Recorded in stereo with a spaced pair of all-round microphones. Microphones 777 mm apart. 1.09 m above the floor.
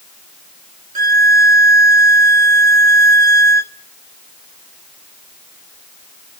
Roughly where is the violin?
Right.